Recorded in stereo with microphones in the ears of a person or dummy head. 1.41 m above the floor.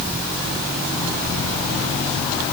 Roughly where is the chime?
I don't hear a chime.